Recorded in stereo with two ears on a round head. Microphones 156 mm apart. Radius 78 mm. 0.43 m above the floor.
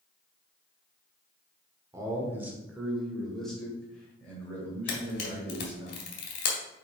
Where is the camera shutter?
60° left (ahead or behind), 1.9 m.